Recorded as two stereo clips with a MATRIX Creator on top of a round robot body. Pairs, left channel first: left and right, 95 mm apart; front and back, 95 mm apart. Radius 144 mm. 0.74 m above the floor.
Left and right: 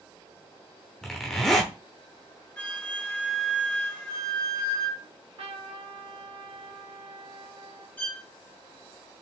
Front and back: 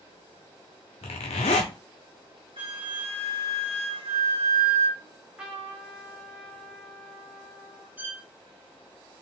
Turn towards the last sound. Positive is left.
turn(degrees=140)